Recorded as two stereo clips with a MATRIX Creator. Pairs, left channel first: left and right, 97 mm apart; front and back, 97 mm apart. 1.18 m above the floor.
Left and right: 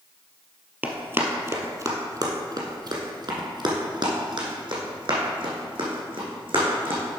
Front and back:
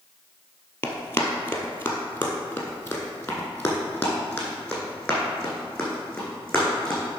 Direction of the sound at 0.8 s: 40° right.